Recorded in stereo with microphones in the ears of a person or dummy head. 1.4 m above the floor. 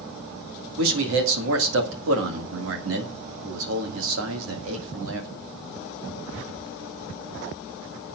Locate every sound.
0.8 s a man speaking: 75° right (ahead or behind), 1.9 m